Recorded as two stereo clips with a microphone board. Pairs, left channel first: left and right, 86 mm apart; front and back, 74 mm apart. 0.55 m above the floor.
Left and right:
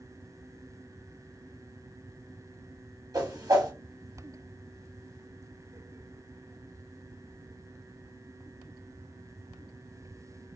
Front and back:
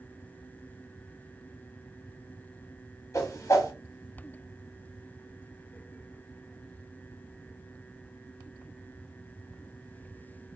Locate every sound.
3.1 s a whoosh: 45° right, 0.8 m